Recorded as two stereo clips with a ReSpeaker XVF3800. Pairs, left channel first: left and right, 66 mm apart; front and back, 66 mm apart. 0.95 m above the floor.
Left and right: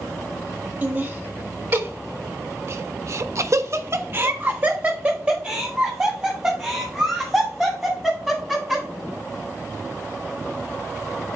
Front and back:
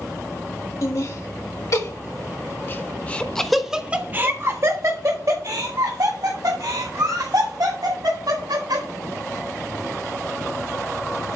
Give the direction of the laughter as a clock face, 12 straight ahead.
1 o'clock.